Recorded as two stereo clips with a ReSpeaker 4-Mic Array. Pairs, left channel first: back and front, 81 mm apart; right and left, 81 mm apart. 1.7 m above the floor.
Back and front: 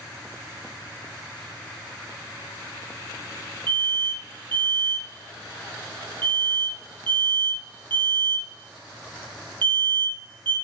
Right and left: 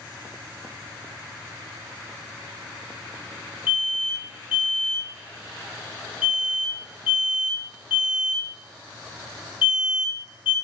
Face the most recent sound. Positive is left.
turn(degrees=15)